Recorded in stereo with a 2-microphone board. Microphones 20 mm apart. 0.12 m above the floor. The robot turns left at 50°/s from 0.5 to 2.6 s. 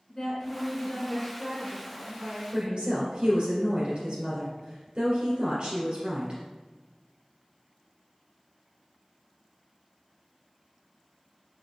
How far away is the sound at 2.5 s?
About 2.0 m.